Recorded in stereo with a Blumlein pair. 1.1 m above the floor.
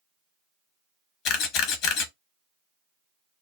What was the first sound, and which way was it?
A camera shutter, 35° left.